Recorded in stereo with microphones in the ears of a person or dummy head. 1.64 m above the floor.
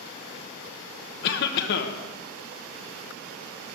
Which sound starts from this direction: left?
A cough, at 1.2 s.